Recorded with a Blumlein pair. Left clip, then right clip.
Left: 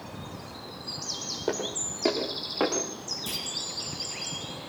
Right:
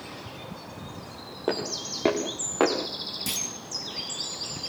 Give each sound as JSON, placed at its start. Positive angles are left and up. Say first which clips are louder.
{"t": 1.5, "sound": "footsteps", "louder": "right 3 dB", "azimuth_deg": -10, "distance_m": 7.0}
{"t": 3.3, "sound": "a clunk", "louder": "right 3 dB", "azimuth_deg": -25, "distance_m": 6.5}